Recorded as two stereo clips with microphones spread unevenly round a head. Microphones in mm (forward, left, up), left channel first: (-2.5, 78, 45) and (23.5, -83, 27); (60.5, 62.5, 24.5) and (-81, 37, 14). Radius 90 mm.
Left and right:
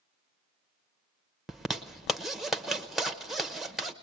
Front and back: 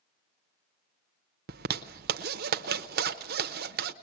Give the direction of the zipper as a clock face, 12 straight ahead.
6 o'clock.